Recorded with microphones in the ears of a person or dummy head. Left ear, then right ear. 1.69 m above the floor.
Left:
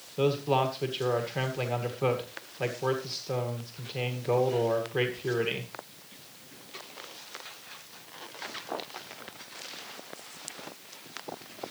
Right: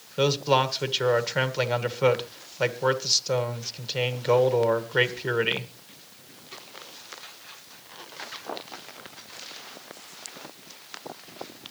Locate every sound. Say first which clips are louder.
0.2 s a man speaking: right 4 dB; 45° right (ahead or behind), 1.9 m